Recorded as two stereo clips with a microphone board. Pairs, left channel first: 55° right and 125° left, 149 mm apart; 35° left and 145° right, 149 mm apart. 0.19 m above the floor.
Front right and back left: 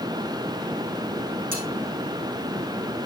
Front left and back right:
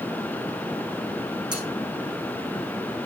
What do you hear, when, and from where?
1.5 s cutlery clinking: 150° left, 7 m